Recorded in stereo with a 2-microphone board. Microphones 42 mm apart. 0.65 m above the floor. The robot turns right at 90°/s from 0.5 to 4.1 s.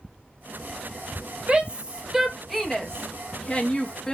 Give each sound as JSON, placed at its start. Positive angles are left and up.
{"t": 1.5, "sound": "a shout", "side_deg": -25, "distance_m": 0.6}